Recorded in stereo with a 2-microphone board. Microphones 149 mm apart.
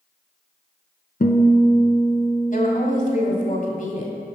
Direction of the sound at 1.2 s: 85° left.